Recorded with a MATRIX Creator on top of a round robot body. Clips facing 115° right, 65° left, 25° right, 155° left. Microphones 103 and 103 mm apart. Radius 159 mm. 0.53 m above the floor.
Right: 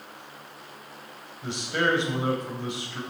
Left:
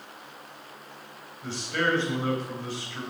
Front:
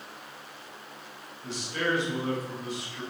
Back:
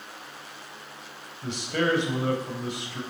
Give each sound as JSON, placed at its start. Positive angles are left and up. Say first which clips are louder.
{"t": 1.4, "sound": "a man speaking", "louder": "right 2 dB, back 5 dB", "azimuth_deg": 175, "distance_m": 3.5}